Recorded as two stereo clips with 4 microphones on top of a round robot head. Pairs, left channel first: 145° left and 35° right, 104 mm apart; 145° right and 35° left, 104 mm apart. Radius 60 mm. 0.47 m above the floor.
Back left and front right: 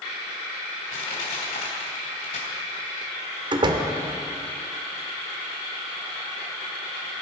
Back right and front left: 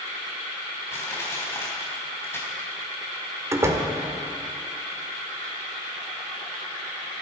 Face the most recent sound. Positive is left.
turn(degrees=-15)